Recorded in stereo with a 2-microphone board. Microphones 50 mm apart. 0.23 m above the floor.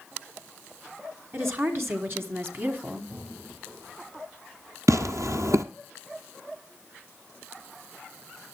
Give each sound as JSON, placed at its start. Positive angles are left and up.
{"t": 1.3, "sound": "a woman speaking", "side_deg": -60, "distance_m": 2.5}
{"t": 3.1, "sound": "breathing", "side_deg": -35, "distance_m": 9.0}
{"t": 4.9, "sound": "tearing paper", "side_deg": -80, "distance_m": 0.9}